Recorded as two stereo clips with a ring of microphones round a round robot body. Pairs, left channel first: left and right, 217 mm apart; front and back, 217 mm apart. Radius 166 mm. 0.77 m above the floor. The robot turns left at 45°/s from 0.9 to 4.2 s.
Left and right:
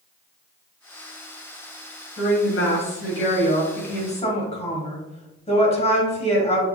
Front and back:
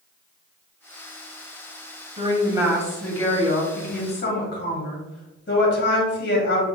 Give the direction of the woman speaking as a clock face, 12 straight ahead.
8 o'clock.